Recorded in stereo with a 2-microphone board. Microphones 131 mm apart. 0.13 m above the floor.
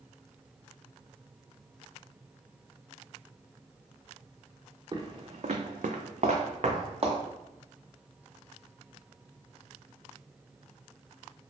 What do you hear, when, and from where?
4.9 s footsteps: 35° right (ahead or behind), 0.6 m; by 7.2 s 45° right (ahead or behind), 1.0 m